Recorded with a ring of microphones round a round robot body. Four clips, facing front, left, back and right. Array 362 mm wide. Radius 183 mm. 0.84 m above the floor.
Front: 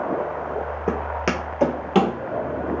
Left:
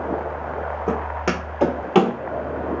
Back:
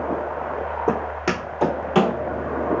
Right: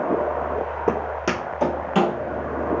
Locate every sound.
0.9 s footsteps: 60° right, 0.8 m; by 2.2 s 55° left, 1.1 m